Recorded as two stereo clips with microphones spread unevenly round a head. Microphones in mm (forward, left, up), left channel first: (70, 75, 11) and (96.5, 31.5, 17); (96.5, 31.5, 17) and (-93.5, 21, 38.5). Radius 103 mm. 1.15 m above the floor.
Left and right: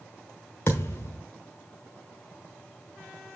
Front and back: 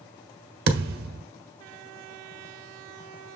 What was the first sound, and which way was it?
A thud, 175° right.